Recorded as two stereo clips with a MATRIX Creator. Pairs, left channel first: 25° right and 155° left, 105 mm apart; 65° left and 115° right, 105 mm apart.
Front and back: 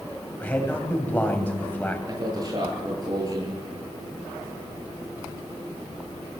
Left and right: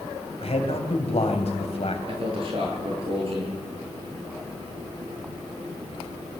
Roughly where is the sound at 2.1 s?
Behind right.